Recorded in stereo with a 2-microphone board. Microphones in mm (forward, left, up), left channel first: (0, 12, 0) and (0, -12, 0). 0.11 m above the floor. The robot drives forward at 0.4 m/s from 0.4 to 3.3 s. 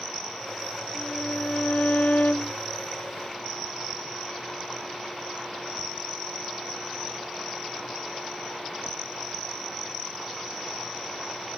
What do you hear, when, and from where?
0.9 s a violin: 80° left